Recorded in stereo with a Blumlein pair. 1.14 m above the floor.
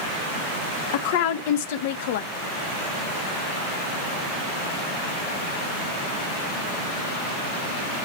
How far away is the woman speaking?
About 0.6 m.